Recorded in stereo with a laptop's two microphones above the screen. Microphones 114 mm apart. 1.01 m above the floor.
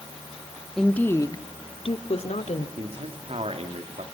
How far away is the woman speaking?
About 1.8 m.